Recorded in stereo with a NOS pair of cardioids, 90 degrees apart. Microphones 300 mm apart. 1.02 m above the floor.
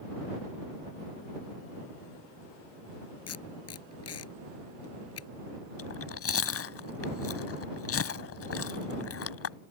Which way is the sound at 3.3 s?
55° left.